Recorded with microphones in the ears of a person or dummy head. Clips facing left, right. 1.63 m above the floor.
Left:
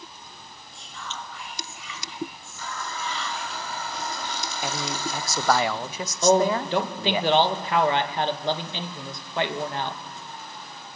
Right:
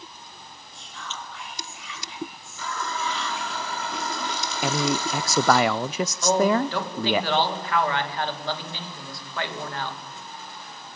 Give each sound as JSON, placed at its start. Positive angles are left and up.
{"t": 0.7, "sound": "whispering", "side_deg": 0, "distance_m": 8.0}
{"t": 2.6, "sound": "a running tap", "side_deg": -60, "distance_m": 2.5}
{"t": 4.6, "sound": "a man speaking", "side_deg": -55, "distance_m": 0.7}
{"t": 6.2, "sound": "a man speaking", "side_deg": 20, "distance_m": 2.5}